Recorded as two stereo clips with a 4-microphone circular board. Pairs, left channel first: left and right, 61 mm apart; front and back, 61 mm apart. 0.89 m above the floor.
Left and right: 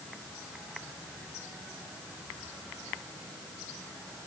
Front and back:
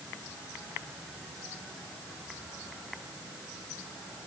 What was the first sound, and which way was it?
Only background noise.